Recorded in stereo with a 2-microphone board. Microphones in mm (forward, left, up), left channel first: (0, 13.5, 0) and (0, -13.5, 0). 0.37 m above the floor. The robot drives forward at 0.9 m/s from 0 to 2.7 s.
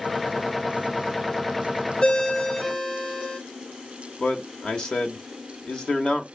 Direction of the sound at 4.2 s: 25° left (ahead or behind).